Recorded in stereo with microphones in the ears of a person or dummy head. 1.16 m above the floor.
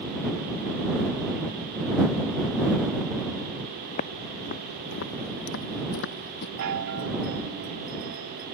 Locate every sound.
3.9 s footsteps: 40° left (ahead or behind); by 6.5 s 50° left (ahead or behind)
6.6 s a chime: 60° right (ahead or behind)